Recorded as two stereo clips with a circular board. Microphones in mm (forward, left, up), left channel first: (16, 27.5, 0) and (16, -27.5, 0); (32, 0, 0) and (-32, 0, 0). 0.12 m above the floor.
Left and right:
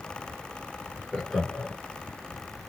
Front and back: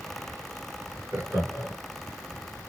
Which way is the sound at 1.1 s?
175° left.